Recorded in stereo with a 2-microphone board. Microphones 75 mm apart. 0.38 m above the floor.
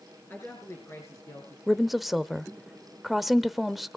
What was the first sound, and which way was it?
A woman speaking, 30° left (ahead or behind).